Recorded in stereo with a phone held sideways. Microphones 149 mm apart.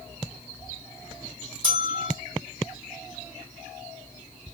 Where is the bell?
35° right (ahead or behind), 1.2 m.